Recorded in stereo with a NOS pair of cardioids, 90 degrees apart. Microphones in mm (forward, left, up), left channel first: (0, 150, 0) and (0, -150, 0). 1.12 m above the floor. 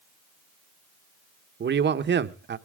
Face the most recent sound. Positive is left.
turn(degrees=-35)